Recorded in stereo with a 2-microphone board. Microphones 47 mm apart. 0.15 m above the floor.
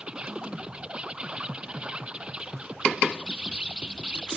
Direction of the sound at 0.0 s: 20° right (ahead or behind).